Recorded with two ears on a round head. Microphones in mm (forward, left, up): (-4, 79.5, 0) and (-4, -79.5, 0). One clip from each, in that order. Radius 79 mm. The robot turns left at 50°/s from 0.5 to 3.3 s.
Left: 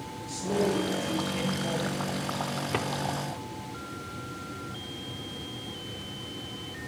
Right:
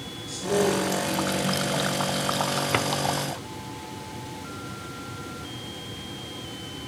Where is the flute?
I don't hear a flute.